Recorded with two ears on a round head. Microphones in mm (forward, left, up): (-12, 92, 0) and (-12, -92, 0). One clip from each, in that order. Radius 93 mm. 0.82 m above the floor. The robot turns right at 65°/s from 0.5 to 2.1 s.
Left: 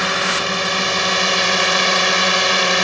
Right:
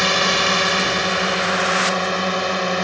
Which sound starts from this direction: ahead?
A drone, at 0.0 s.